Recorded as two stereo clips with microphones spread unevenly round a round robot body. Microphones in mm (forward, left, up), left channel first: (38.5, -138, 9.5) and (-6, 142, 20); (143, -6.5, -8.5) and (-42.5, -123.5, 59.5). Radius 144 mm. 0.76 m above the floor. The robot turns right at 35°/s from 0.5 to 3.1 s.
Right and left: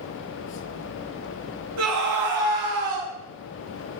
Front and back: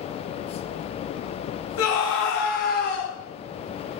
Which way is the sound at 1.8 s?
65° left.